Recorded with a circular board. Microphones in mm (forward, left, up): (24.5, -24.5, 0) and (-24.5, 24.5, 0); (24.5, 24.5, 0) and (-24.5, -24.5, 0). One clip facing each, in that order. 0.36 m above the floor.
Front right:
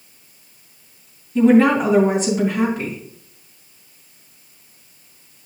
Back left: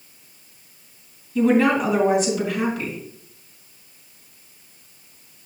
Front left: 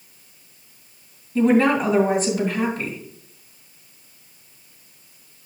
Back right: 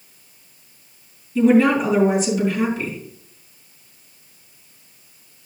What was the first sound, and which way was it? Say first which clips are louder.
A woman speaking: front right 4 dB, back right 2 dB; 10° left.